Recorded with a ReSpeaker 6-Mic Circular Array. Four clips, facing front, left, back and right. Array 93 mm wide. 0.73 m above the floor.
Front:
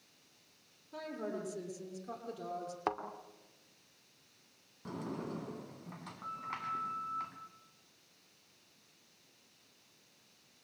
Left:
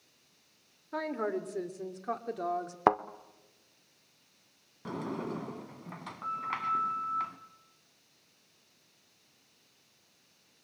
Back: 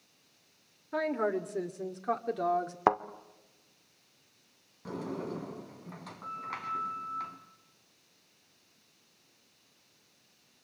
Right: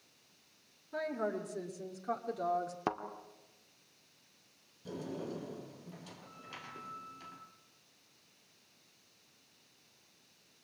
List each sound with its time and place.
0.9 s a woman speaking: 145° left, 2.5 m; by 2.8 s 160° left, 1.8 m
2.9 s a thud: 125° left, 0.9 m
4.8 s a sliding door: 95° left, 2.5 m